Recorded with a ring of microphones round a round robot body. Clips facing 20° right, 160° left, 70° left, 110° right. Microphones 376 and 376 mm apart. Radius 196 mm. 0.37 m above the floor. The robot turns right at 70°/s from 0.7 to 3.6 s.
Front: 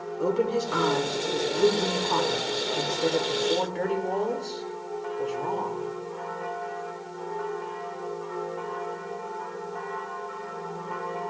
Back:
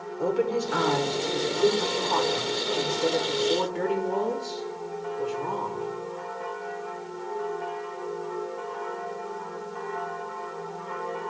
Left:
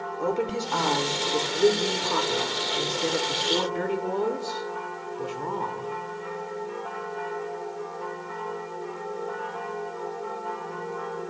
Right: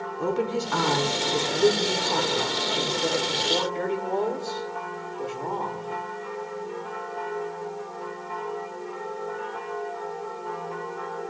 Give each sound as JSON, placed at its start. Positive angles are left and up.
{"t": 0.2, "sound": "a woman speaking", "azimuth_deg": -100, "distance_m": 0.8}